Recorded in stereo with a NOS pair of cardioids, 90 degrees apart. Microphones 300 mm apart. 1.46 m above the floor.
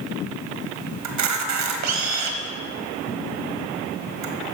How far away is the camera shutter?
About 1.3 m.